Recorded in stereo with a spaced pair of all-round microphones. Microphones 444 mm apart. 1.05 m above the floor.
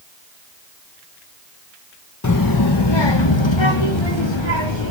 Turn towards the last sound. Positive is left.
turn(degrees=75)  # may be behind; listen again after turning